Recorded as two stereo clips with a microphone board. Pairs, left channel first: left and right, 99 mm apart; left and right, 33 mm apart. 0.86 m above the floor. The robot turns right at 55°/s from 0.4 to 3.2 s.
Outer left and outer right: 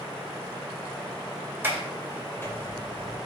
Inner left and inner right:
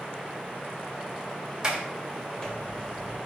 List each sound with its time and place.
1.6 s a sliding door: 25° right (ahead or behind), 2 m; by 3.2 s 60° left (ahead or behind), 2 m